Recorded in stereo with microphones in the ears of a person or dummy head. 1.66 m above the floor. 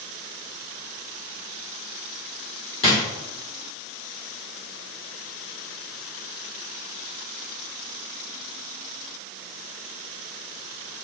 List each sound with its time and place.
2.8 s a drawer: 35° left (ahead or behind), 1.7 m